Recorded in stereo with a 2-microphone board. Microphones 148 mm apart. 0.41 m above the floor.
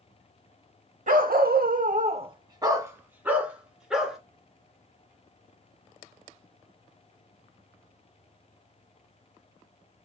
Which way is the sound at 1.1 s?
65° right (ahead or behind).